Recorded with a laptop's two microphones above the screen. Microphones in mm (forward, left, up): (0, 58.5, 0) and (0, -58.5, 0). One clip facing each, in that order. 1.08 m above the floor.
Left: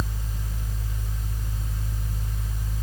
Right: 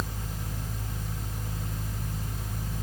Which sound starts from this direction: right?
A fan, at 0.0 s.